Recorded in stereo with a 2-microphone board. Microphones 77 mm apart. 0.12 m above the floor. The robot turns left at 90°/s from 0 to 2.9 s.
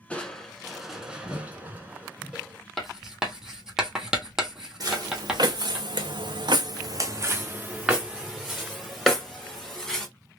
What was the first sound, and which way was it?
Crushing, 15° left (ahead or behind).